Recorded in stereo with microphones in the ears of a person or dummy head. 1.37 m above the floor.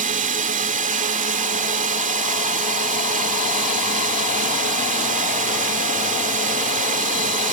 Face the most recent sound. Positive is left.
turn(degrees=-40)  # may be behind; listen again after turning